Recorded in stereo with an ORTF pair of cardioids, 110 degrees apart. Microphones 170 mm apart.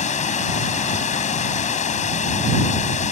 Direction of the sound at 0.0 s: 45° left.